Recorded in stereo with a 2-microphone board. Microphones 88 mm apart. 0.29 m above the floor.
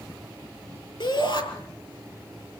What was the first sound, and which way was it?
A shout, 60° left (ahead or behind).